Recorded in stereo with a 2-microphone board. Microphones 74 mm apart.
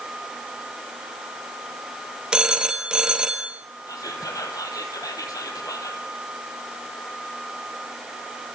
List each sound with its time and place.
2.3 s a phone ringing: 10° right (ahead or behind), 2 m
3.9 s whispering: 55° left (ahead or behind), 4 m